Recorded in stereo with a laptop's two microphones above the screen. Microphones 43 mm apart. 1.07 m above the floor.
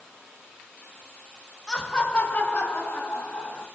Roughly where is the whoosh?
No whoosh in this recording.